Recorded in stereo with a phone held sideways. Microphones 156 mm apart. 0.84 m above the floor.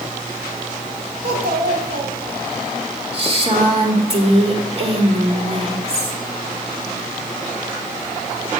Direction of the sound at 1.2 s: 85° right.